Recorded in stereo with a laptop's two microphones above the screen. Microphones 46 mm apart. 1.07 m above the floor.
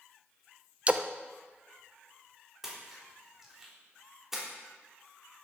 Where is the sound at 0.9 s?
25° right (ahead or behind), 0.6 m.